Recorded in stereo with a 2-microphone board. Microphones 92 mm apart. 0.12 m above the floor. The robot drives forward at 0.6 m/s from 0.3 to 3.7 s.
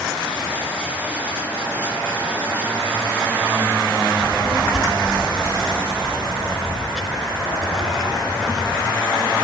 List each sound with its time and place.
4.2 s a child speaking: centre (ahead or behind), 0.8 m